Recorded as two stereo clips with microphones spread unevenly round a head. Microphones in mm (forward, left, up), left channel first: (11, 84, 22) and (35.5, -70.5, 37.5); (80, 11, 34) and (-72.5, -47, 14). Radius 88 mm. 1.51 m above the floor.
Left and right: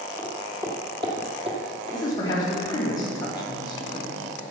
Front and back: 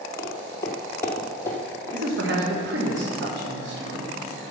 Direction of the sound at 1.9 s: 170° left.